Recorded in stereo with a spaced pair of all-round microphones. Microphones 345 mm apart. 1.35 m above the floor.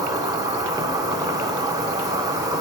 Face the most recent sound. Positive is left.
turn(degrees=-10)  # may be behind; listen again after turning